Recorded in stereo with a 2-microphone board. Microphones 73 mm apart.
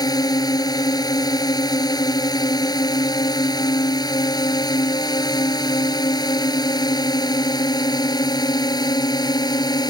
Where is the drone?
65° left (ahead or behind); by 9.9 s 70° left (ahead or behind).